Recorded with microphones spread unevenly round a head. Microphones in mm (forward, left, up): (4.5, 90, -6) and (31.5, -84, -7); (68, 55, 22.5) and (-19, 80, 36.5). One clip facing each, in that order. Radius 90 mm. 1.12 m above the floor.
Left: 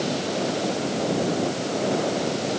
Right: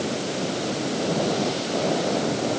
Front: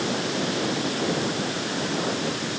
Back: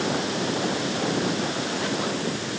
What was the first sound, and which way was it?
Only background noise.